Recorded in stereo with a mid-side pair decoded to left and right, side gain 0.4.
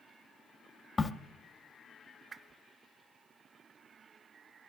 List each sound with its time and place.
1.0 s a crack: 25° left, 0.8 m
2.3 s a whoosh: 40° right, 1.0 m